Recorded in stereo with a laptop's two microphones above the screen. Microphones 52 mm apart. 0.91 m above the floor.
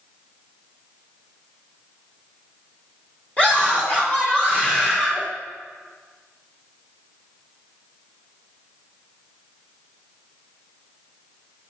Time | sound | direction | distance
3.4 | a scream | 25° left (ahead or behind) | 2.5 m